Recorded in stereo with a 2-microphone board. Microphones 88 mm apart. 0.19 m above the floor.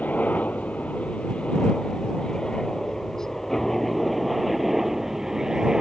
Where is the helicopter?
20° left (ahead or behind); by 5.8 s 10° right (ahead or behind).